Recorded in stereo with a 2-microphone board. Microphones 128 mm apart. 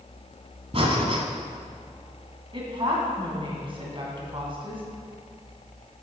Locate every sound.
0.7 s breathing: 50° right (ahead or behind), 1.2 m
2.5 s a woman speaking: 40° right (ahead or behind), 2.5 m